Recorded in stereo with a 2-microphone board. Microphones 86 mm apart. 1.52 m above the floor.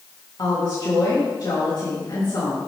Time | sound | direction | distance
0.4 | a woman speaking | 50° left (ahead or behind) | 3 m